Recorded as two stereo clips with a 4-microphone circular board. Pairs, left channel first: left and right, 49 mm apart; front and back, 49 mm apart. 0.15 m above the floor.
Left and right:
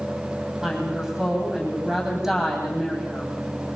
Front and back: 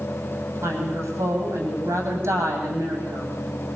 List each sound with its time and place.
0.6 s a woman speaking: 170° right, 8.5 m